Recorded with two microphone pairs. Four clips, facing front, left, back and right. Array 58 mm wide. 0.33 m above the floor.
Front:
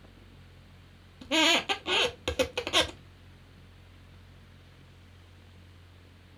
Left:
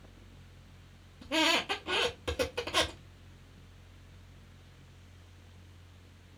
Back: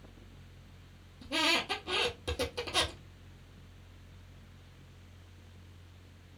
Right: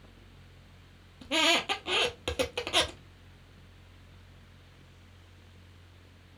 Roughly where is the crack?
No crack in this recording.